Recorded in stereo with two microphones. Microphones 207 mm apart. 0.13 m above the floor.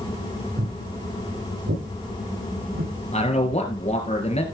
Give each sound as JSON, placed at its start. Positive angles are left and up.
{"t": 0.6, "sound": "footsteps", "side_deg": -55, "distance_m": 9.5}
{"t": 3.1, "sound": "a man speaking", "side_deg": 30, "distance_m": 2.5}